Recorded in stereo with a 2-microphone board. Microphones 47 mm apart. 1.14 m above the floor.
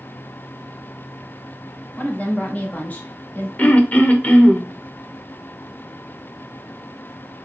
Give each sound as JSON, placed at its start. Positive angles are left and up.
{"t": 2.0, "sound": "a woman speaking", "side_deg": 35, "distance_m": 1.7}
{"t": 3.6, "sound": "throat clearing", "side_deg": 30, "distance_m": 0.9}